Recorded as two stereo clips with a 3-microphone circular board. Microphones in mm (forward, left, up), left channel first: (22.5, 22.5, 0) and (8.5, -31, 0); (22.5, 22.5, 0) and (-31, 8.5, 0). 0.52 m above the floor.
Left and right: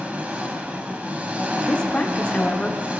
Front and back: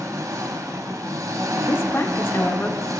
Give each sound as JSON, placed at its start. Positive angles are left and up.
{"t": 0.0, "sound": "an engine running", "azimuth_deg": -170, "distance_m": 0.9}
{"t": 1.6, "sound": "a woman speaking", "azimuth_deg": 20, "distance_m": 1.0}